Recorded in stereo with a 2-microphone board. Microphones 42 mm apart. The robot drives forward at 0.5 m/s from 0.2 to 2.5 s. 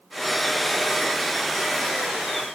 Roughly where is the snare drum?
No snare drum in this recording.